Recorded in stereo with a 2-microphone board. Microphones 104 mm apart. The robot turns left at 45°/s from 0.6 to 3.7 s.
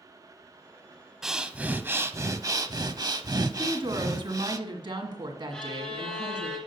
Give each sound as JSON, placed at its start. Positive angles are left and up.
{"t": 1.2, "sound": "breathing", "azimuth_deg": -5, "distance_m": 0.5}
{"t": 3.6, "sound": "a woman speaking", "side_deg": -50, "distance_m": 1.9}
{"t": 5.5, "sound": "a violin", "side_deg": 10, "distance_m": 2.5}